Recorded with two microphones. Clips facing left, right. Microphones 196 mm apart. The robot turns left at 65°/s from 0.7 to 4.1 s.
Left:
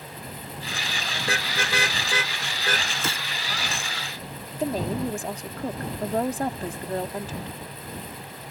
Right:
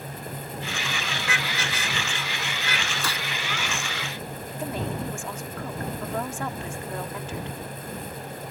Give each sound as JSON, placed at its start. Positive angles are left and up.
{"t": 1.2, "sound": "a car horn", "side_deg": 30}
{"t": 3.0, "sound": "a gunshot", "side_deg": 25}
{"t": 4.6, "sound": "a woman speaking", "side_deg": 35}